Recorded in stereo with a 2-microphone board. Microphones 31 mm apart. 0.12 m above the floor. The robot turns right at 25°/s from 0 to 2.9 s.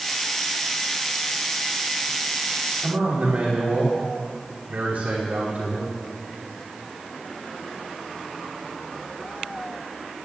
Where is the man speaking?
65° right (ahead or behind), 7 m.